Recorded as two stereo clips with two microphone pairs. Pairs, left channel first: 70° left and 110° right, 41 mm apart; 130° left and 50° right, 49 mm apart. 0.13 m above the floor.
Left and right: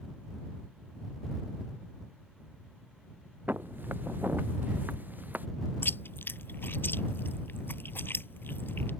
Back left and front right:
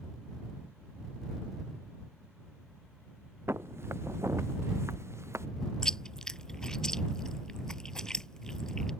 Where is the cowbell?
I don't hear a cowbell.